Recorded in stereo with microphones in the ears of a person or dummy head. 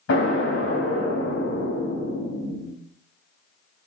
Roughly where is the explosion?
Left.